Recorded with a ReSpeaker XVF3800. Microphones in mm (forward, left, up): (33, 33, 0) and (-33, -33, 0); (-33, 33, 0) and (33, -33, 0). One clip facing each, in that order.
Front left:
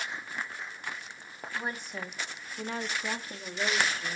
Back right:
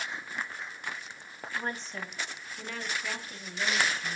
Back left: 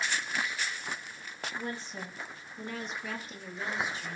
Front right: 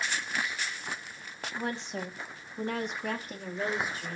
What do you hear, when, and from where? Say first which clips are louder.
1.6 s a woman speaking: even, front right 5 dB; 40° right, 1.7 m; by 4.2 s 5° left, 2 m